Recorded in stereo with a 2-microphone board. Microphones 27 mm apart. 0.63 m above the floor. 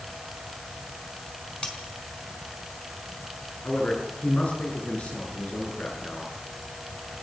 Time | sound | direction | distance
1.6 | cutlery clinking | 40° left (ahead or behind) | 4 m
3.6 | a man speaking | 75° left (ahead or behind) | 8.5 m